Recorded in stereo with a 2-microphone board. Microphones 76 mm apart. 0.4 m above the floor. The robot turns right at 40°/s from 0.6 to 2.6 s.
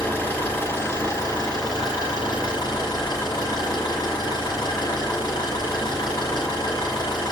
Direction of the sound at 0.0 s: 25° left.